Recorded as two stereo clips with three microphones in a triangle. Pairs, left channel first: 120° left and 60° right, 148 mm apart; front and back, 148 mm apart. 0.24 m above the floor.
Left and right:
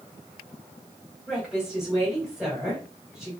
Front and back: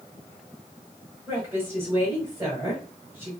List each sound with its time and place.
1.3 s a woman speaking: 140° right, 1.3 m